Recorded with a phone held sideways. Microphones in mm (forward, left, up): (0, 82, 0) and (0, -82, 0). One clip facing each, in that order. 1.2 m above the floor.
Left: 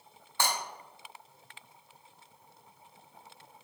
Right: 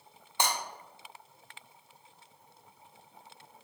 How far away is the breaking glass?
About 0.6 m.